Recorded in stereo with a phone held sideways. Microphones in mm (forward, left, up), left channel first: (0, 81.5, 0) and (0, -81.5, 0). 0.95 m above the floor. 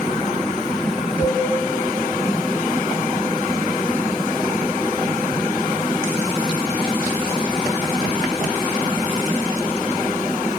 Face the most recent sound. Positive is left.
turn(degrees=15)  # may be behind; listen again after turning